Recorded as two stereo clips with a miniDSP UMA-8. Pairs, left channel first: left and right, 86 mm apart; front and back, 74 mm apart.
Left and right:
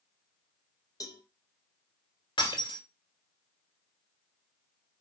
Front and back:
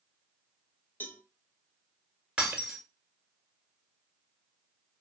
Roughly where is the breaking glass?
Left.